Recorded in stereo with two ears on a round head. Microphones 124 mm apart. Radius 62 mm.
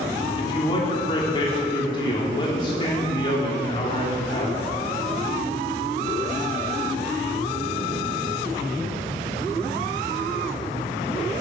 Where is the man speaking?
35° left (ahead or behind), 3 m.